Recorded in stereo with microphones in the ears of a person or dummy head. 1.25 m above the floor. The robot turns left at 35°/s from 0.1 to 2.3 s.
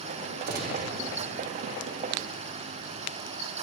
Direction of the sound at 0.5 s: 60° right (ahead or behind).